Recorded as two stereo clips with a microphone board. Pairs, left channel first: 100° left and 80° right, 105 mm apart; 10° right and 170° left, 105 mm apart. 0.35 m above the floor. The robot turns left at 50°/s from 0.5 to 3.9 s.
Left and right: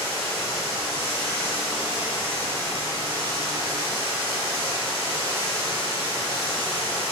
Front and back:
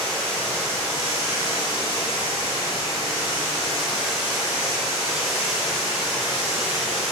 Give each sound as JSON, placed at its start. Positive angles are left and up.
{"t": 0.0, "sound": "running water", "azimuth_deg": 65, "distance_m": 1.1}